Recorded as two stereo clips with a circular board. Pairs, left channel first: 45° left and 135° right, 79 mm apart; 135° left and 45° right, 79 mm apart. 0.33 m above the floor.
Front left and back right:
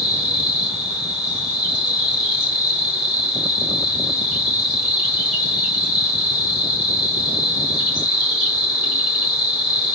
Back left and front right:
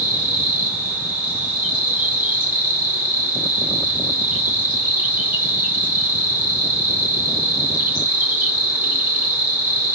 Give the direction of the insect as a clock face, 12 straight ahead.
2 o'clock.